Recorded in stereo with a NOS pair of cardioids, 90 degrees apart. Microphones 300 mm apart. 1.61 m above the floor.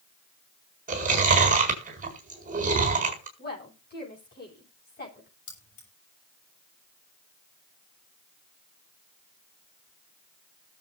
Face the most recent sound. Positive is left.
turn(degrees=70)